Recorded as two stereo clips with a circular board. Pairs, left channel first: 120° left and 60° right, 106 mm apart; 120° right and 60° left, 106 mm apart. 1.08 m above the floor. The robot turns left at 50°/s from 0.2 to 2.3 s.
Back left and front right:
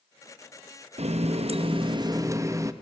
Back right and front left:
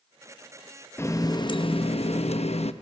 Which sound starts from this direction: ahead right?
A running tap, at 1.0 s.